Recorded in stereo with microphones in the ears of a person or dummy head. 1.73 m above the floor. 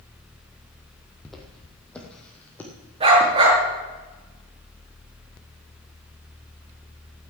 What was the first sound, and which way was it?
Footsteps, centre (ahead or behind).